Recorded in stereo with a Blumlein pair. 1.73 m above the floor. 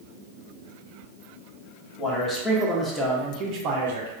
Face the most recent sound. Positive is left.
turn(degrees=-65)